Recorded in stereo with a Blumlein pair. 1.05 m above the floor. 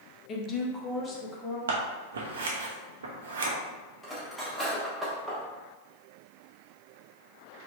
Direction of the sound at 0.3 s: 30° left.